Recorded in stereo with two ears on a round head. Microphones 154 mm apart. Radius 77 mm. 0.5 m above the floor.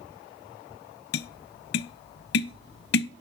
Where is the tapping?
65° left (ahead or behind), 0.5 m.